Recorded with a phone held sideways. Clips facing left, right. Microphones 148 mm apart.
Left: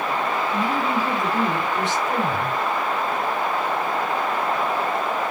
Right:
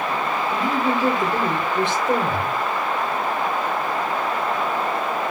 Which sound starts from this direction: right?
A woman speaking, at 0.5 s.